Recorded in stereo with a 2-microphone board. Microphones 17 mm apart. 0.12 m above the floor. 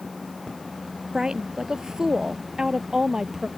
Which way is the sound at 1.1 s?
55° right (ahead or behind).